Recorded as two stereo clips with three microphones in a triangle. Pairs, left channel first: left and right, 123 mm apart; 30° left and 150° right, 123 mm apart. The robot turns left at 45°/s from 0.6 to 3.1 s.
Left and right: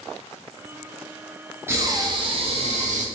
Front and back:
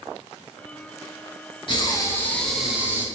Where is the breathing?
20° right, 0.9 m; by 3.0 s 80° right, 0.9 m.